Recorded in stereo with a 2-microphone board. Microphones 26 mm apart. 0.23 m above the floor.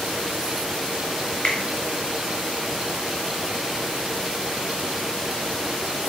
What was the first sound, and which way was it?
A finger snap, 50° left (ahead or behind).